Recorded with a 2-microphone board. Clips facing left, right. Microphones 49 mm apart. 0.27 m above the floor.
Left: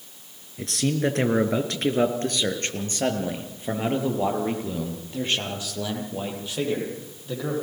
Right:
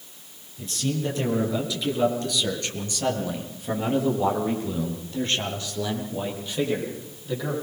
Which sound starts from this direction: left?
A man speaking, at 0.6 s.